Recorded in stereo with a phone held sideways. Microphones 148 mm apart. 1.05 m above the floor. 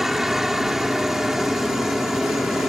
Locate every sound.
0.0 s a helicopter: centre (ahead or behind)